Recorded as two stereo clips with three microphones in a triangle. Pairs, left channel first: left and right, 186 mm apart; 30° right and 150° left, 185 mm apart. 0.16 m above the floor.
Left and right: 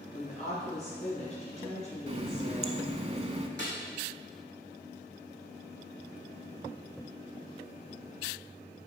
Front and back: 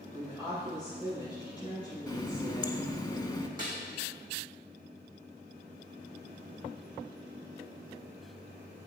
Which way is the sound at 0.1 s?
40° left.